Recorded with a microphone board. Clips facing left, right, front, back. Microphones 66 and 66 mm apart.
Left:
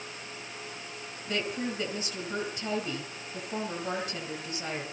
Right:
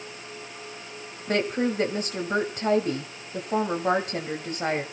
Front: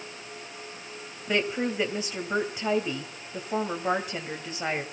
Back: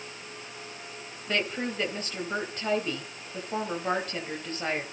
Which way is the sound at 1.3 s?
75° right.